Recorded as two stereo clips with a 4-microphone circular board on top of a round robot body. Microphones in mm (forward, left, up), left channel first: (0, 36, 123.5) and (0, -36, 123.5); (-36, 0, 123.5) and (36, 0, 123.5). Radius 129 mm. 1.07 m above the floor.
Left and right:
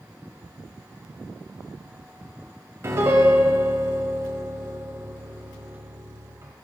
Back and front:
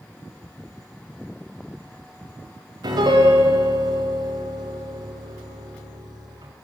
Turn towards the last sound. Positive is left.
turn(degrees=-30)